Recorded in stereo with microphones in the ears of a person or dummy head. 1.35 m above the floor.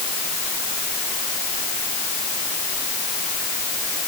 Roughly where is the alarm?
I don't hear an alarm.